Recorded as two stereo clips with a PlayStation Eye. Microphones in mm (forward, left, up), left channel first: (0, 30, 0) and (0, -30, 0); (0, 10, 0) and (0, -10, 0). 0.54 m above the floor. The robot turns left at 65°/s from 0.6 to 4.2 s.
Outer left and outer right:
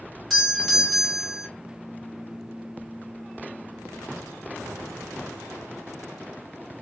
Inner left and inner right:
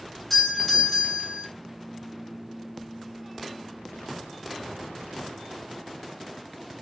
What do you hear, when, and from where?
0.3 s a doorbell: centre (ahead or behind), 1.4 m; by 1.5 s 20° left (ahead or behind), 1.4 m